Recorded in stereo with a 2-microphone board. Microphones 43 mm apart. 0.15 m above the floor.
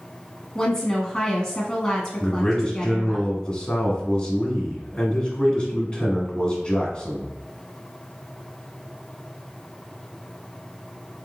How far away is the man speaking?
About 1.7 m.